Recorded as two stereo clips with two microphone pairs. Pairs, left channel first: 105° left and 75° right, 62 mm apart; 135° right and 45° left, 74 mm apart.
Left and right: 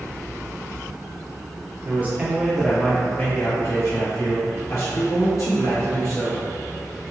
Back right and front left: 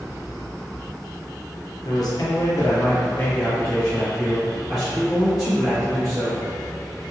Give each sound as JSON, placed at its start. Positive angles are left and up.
{"t": 1.9, "sound": "a man speaking", "azimuth_deg": -125, "distance_m": 0.9}